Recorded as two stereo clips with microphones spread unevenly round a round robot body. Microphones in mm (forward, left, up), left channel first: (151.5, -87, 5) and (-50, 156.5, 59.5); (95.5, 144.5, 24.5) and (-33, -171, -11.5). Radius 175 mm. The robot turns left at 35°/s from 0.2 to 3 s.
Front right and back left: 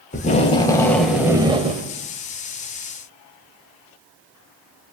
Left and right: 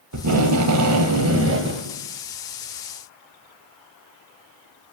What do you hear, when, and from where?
0.1 s tape being pulled: 100° right, 2 m; by 1.9 s 160° right, 2 m